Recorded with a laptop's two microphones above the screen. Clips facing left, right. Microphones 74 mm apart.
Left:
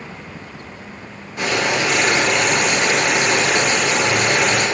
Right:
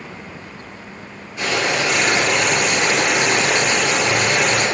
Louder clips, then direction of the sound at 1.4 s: Left 1 dB; 45° left (ahead or behind).